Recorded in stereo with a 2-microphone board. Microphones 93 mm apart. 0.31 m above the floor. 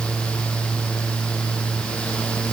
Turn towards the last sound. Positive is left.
No sound to turn to.